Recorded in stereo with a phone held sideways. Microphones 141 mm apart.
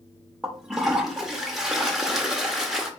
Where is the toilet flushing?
5° right (ahead or behind), 0.7 m.